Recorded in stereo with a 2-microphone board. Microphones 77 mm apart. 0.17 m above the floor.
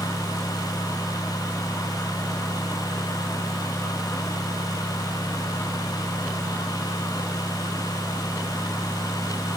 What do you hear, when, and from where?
Only background noise.